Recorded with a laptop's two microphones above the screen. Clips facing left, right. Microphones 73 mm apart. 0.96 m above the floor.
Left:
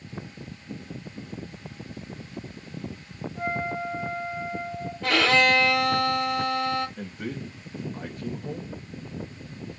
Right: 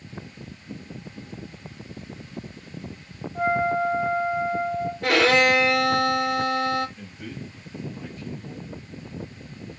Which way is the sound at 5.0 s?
85° right.